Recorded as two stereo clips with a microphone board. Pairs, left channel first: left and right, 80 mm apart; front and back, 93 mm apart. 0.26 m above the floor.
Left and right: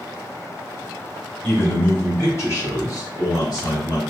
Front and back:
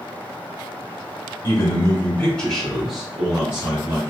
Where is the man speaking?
30° left, 1.9 m; by 4.0 s 110° left, 3 m.